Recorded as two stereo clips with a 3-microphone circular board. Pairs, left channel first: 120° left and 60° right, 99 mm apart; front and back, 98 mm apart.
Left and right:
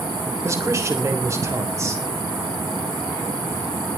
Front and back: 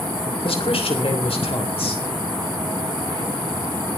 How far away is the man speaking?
About 3 m.